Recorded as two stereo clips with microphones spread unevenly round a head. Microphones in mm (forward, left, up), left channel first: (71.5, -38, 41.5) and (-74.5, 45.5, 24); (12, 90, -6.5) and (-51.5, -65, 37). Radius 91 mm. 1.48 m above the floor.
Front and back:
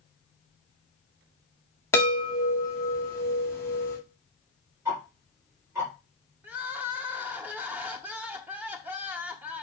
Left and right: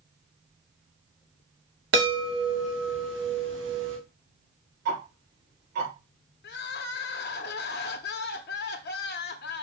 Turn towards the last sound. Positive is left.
turn(degrees=70)